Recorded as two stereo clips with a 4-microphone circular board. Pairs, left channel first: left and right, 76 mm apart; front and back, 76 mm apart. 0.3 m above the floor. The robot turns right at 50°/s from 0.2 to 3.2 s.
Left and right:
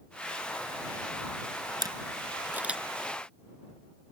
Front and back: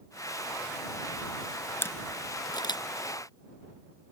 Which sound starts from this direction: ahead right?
A camera shutter, at 1.8 s.